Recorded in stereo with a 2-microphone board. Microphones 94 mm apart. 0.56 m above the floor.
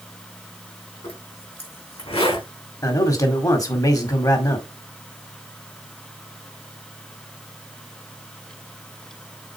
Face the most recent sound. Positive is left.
turn(degrees=40)  # may be behind; listen again after turning